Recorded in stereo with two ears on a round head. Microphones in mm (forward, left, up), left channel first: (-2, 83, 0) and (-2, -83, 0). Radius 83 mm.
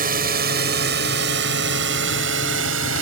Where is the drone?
50° right (ahead or behind); by 3.0 s 80° right.